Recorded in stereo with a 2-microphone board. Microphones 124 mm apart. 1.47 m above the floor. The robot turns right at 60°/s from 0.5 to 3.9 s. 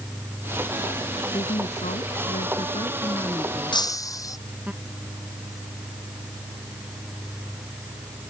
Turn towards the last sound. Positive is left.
turn(degrees=25)  # may be behind; listen again after turning